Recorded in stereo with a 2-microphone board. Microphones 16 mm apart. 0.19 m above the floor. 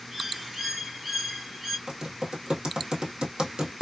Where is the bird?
30° right (ahead or behind), 1.4 m.